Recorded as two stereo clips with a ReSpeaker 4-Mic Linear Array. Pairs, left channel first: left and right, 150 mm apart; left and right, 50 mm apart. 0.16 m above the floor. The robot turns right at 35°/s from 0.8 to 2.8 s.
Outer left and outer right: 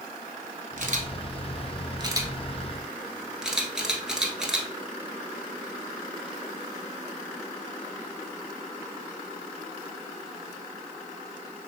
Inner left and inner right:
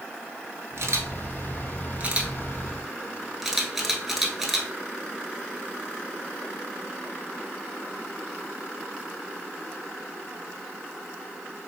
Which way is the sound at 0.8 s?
65° right (ahead or behind).